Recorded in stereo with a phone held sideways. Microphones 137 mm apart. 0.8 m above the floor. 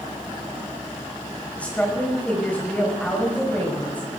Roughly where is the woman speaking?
Centre.